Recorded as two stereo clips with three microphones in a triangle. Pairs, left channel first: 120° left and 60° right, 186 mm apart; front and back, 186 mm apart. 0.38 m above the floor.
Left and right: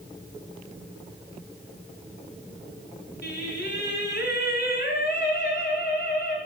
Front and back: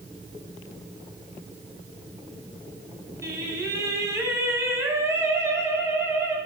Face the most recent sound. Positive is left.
turn(degrees=105)